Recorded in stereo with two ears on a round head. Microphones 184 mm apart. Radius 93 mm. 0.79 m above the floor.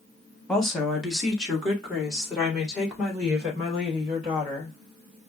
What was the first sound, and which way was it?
A woman speaking, centre (ahead or behind).